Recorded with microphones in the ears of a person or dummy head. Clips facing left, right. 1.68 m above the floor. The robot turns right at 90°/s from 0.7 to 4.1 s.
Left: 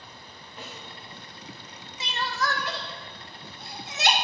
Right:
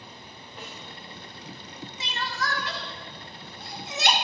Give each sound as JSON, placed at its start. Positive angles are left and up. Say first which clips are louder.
{"t": 0.6, "sound": "a snare drum", "louder": "left 1 dB", "side_deg": 0, "distance_m": 3.5}
{"t": 2.0, "sound": "crying", "louder": "left 3 dB", "side_deg": 80, "distance_m": 1.0}